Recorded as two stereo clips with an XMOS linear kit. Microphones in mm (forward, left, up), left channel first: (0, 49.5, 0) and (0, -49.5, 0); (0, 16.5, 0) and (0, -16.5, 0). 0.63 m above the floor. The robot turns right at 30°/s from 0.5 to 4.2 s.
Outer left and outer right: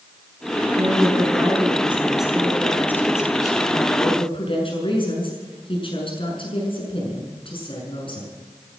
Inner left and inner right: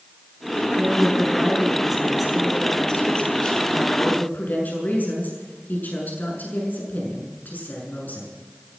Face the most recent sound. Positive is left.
turn(degrees=55)